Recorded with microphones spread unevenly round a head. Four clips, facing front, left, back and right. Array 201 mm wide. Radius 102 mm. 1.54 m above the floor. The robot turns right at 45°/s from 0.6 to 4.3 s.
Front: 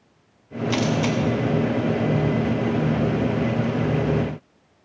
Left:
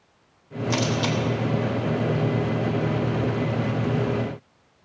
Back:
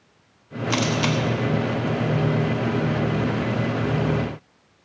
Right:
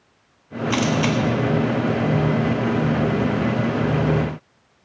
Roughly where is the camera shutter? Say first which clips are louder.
Right 4 dB, front 1 dB; behind left.